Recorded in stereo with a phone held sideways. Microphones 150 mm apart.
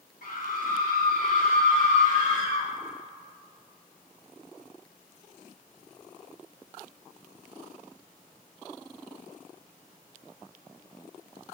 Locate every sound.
0.2 s a scream: 70° left (ahead or behind), 3.5 m; by 2.7 s 45° left (ahead or behind), 1.9 m